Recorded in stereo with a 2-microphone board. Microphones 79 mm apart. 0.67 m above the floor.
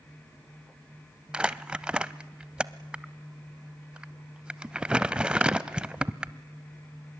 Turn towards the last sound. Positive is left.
turn(degrees=-10)  # may be behind; listen again after turning